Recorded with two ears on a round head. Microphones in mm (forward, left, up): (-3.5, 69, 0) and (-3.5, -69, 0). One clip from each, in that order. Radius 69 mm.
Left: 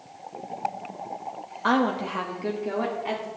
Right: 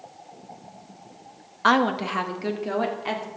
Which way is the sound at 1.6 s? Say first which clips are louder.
Right 3 dB; 45° right (ahead or behind).